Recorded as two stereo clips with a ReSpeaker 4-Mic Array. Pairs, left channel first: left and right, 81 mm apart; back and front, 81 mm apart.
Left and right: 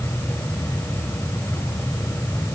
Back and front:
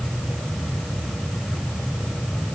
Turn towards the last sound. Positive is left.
No sound to turn to.